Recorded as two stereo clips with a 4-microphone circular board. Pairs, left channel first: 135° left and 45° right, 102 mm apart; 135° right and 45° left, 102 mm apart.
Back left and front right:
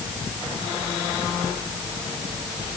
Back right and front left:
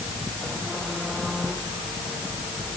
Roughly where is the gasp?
No gasp in this recording.